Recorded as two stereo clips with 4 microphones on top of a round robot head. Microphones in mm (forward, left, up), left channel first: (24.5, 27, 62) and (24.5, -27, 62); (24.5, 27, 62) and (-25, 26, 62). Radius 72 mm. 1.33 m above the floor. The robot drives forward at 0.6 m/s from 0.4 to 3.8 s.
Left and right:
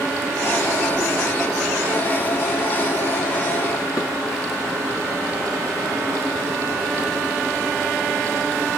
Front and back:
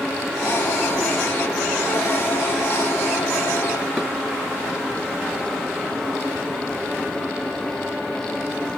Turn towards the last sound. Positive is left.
turn(degrees=115)